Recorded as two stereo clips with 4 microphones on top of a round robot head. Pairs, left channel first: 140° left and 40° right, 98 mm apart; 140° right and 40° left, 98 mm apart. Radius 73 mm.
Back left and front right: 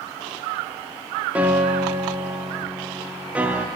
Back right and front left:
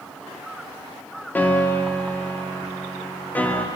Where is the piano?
95° right, 1.1 m.